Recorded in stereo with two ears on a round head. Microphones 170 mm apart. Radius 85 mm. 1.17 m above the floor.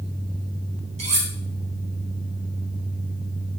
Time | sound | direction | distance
1.0 | cutlery clinking | 35° right (ahead or behind) | 2.5 m